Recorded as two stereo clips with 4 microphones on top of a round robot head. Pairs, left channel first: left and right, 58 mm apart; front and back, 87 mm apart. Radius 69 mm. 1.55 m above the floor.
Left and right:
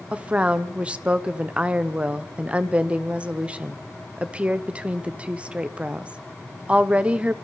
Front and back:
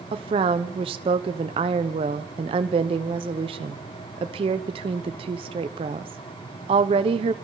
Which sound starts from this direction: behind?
A woman speaking, at 0.1 s.